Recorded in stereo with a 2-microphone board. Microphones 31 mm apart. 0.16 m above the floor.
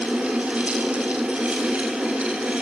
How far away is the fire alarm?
No fire alarm in this recording.